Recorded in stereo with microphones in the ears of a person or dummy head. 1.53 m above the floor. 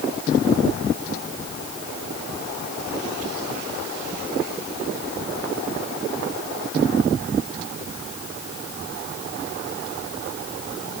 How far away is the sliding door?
No sliding door in this recording.